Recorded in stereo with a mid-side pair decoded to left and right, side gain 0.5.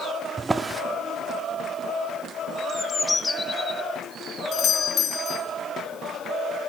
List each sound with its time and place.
0.4 s a drawer: 25° right, 1.0 m
2.7 s a bird: 25° left, 0.7 m
4.5 s a doorbell: 60° left, 2 m